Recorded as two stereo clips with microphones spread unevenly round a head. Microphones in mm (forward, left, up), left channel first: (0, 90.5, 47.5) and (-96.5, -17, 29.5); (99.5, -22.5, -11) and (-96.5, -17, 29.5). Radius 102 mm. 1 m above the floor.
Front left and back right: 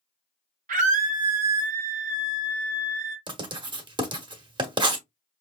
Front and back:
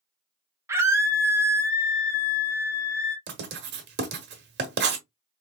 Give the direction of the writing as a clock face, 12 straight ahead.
6 o'clock.